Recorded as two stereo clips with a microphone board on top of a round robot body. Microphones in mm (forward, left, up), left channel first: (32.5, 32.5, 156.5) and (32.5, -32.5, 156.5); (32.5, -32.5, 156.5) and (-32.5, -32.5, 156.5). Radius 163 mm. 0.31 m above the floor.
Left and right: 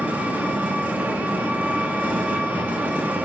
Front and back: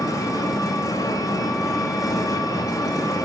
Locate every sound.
0.0 s an engine running: 20° right, 0.8 m